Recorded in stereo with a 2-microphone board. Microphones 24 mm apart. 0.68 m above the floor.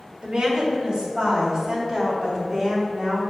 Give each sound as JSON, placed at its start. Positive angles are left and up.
{"t": 0.2, "sound": "a woman speaking", "side_deg": -40, "distance_m": 2.0}